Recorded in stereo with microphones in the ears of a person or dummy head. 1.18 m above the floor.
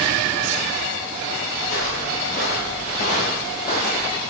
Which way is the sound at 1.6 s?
50° left (ahead or behind).